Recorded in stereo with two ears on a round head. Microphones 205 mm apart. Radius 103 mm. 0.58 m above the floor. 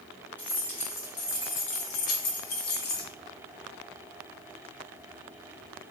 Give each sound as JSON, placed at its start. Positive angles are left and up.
{"t": 0.4, "sound": "keys jangling", "side_deg": 5, "distance_m": 1.3}